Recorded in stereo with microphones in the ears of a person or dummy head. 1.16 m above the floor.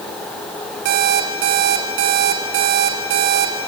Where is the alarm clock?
50° right (ahead or behind), 1.4 m.